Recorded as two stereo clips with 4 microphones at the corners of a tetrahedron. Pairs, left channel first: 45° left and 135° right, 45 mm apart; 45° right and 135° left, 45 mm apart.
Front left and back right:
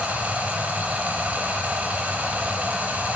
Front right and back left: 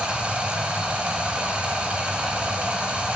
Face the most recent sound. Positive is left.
turn(degrees=-175)